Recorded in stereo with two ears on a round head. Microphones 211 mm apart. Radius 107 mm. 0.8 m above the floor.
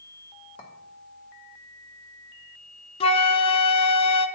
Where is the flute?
25° left (ahead or behind), 0.8 m.